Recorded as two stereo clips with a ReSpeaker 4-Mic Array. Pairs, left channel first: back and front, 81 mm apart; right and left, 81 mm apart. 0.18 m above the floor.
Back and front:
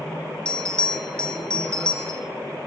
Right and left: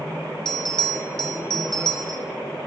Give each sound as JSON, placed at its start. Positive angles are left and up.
{"t": 0.5, "sound": "a bell", "azimuth_deg": -105, "distance_m": 0.6}